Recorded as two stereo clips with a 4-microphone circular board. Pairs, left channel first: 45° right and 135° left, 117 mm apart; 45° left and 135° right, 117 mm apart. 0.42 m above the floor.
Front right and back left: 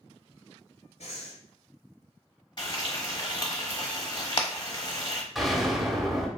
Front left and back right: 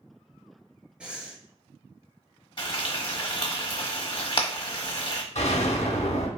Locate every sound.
1.0 s breathing: 55° right, 1.1 m
2.6 s frying: straight ahead, 1.0 m
5.3 s an explosion: 45° left, 0.6 m